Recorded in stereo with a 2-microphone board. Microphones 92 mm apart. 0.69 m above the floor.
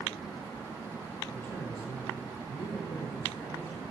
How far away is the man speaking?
About 3 m.